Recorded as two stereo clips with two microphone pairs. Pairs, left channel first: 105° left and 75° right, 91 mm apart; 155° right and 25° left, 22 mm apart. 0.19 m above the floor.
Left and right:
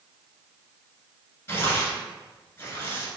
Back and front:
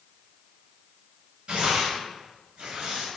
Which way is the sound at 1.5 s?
45° left.